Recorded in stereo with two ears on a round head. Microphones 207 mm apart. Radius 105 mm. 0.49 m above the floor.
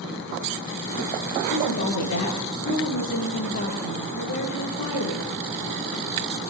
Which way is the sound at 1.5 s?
75° left (ahead or behind).